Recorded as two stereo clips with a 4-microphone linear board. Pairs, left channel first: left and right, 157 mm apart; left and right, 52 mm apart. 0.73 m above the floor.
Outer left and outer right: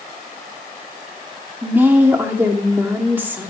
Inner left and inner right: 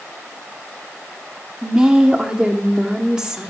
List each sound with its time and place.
1.6 s a woman speaking: 15° right (ahead or behind), 1.8 m